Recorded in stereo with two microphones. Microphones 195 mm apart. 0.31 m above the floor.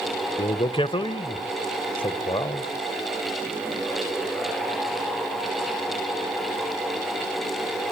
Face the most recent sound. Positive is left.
turn(degrees=30)  # may be behind; listen again after turning